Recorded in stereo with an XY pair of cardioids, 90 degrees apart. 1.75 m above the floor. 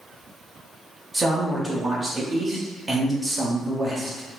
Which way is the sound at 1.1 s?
25° right.